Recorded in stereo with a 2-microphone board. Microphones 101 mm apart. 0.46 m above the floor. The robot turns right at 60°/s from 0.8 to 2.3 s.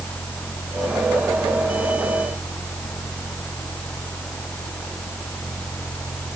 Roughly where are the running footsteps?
I don't hear running footsteps.